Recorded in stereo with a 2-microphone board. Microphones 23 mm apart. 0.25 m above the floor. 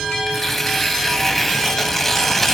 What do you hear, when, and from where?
0.3 s tearing paper: 10° left (ahead or behind), 1.6 m